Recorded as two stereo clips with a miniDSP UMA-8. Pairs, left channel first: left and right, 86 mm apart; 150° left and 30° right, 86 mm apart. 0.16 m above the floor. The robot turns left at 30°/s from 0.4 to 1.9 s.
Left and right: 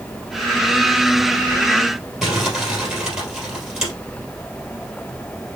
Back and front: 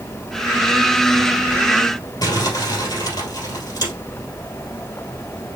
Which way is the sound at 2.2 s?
175° right.